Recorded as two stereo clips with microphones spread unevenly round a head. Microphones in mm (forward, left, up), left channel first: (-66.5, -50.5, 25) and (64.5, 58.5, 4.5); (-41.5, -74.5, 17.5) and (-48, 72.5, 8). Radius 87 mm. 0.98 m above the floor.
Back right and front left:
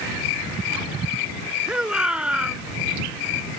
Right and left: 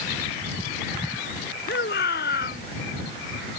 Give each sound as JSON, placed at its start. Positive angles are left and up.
{"t": 1.7, "sound": "a shout", "azimuth_deg": -45}